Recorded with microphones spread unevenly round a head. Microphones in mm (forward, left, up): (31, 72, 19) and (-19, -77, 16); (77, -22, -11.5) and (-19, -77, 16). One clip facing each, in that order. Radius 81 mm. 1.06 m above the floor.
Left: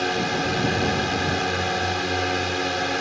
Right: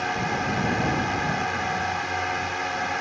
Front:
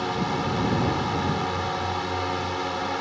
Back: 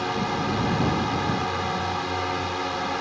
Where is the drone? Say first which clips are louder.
Left 3 dB, even; 120° left.